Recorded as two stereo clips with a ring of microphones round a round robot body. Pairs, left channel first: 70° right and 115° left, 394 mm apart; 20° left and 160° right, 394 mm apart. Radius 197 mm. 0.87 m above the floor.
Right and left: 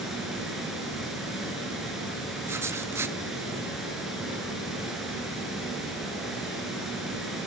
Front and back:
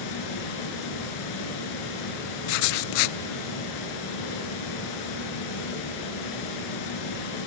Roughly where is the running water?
Ahead left.